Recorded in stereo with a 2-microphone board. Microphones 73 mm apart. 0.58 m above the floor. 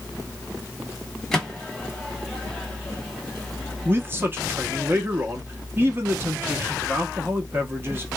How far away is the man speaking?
About 0.8 m.